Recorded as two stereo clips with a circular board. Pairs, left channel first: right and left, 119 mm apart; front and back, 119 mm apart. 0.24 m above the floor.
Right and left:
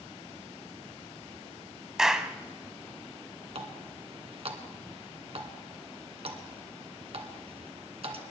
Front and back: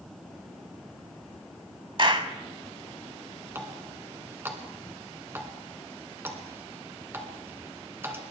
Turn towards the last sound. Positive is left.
turn(degrees=115)